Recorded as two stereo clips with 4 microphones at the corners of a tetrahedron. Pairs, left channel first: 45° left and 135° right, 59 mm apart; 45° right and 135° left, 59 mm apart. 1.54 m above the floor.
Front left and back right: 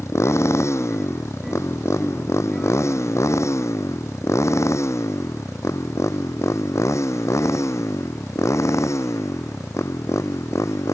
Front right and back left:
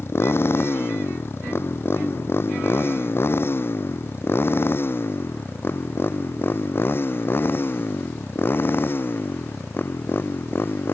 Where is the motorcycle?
5° left; by 10.9 s 10° left.